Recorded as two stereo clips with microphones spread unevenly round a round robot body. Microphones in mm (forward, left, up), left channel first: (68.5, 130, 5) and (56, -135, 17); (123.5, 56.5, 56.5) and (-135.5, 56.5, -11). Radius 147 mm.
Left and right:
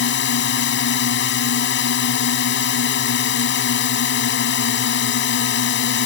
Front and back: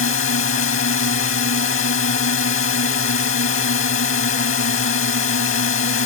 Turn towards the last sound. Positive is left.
turn(degrees=45)